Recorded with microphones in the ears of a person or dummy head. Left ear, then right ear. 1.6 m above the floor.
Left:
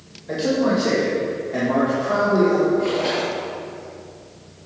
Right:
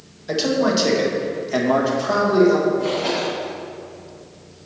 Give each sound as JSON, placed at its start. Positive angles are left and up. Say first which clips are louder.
{"t": 0.3, "sound": "a man speaking", "louder": "right 1 dB", "side_deg": -35, "distance_m": 1.7}
{"t": 2.8, "sound": "a splash", "louder": "even", "side_deg": 5, "distance_m": 2.5}